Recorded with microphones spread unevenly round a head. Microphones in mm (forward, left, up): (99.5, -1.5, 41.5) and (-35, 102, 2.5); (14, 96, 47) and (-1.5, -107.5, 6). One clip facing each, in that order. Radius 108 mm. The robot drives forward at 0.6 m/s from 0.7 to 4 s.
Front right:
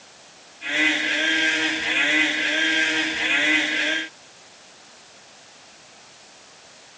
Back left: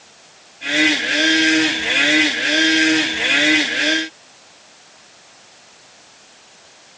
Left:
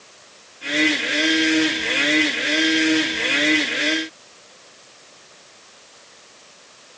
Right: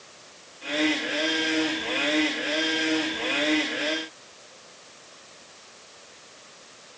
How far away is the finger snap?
I don't hear a finger snap.